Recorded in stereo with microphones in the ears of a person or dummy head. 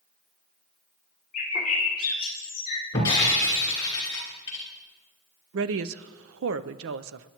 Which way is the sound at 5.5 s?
70° right (ahead or behind).